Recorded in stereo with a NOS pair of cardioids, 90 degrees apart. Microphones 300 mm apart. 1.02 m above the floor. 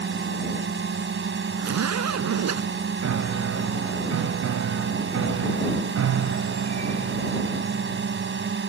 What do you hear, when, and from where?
0.0 s a drone: 35° right
1.6 s a zipper: 60° right
3.0 s a piano: 60° right